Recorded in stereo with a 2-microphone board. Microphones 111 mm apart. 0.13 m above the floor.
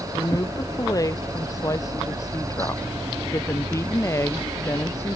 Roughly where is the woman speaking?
Left.